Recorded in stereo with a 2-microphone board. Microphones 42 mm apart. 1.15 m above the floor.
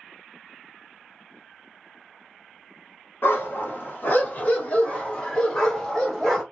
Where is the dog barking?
55° left (ahead or behind), 1.0 m; by 6.4 s 5° left (ahead or behind), 1.6 m.